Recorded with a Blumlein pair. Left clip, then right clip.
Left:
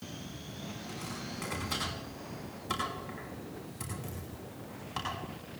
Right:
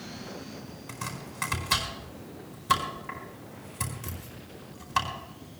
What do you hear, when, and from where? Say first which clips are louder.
0.9 s chopping: right 5 dB; 65° right, 5 m